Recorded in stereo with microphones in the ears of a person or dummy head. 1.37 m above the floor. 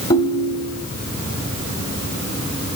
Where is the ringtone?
25° left (ahead or behind), 1.3 m.